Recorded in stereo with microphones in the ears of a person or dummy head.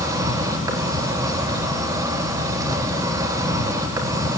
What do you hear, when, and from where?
0.0 s an insect: 15° right (ahead or behind), 4 m